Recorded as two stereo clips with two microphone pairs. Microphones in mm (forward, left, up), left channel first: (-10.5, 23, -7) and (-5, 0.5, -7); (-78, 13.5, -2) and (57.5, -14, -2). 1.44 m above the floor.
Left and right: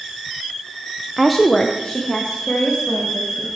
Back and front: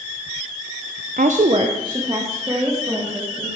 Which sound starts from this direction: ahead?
A woman speaking, at 1.2 s.